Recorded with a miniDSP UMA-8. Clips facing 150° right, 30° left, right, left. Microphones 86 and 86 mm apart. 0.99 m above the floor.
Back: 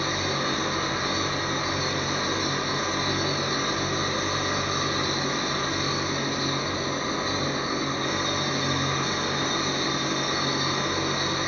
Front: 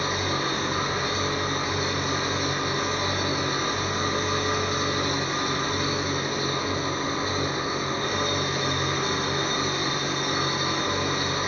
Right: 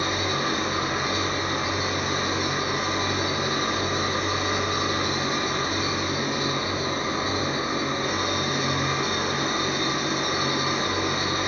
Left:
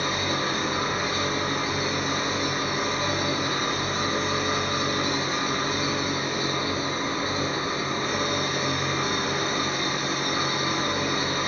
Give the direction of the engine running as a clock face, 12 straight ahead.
12 o'clock.